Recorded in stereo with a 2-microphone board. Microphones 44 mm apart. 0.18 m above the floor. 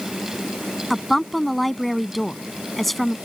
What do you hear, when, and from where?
0.9 s a woman speaking: 5° left (ahead or behind)